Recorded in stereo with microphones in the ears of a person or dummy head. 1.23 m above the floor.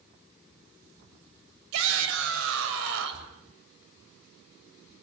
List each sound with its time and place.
1.7 s a shout: 75° right (ahead or behind), 6.5 m